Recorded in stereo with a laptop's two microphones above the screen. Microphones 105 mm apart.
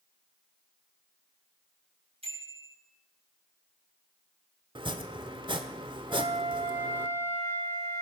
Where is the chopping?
50° right (ahead or behind), 1.2 m.